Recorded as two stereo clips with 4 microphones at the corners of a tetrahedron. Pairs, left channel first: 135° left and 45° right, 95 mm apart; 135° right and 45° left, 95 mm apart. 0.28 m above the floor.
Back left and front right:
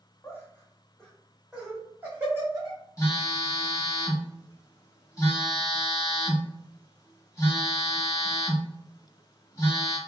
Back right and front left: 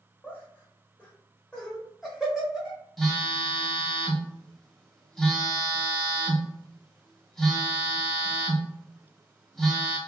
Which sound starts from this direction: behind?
Laughter, at 0.2 s.